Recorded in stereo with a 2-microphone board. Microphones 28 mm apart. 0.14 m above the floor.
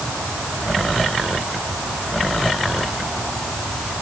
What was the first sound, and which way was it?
Only background noise.